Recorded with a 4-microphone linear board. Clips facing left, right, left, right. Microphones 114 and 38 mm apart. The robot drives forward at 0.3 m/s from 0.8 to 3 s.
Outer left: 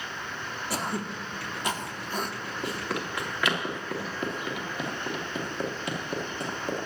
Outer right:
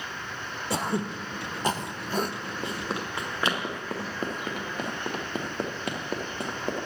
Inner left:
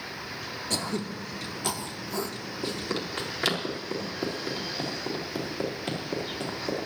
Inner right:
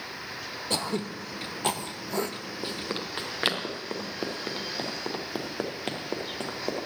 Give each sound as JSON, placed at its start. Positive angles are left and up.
{"t": 0.7, "sound": "throat clearing", "side_deg": -25, "distance_m": 0.8}
{"t": 2.6, "sound": "running footsteps", "side_deg": -25, "distance_m": 3.0}